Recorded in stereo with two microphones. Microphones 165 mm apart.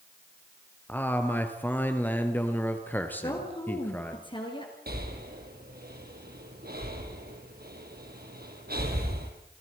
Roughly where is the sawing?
I don't hear sawing.